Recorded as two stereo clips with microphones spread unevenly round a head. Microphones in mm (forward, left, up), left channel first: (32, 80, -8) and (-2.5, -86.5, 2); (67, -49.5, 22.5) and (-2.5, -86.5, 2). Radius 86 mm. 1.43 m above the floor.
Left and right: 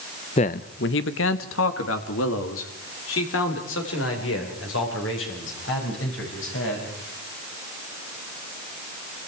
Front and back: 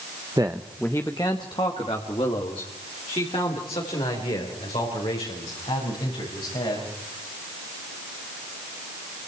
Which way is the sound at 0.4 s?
135° left.